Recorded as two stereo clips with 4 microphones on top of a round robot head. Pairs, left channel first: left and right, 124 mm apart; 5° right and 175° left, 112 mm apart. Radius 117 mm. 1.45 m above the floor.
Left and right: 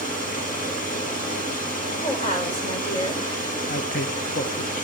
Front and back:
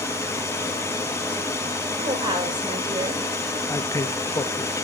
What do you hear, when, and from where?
0.0 s running water: 60° left, 4.5 m
2.0 s a woman speaking: 125° left, 6 m
3.7 s a man speaking: 60° left, 1.5 m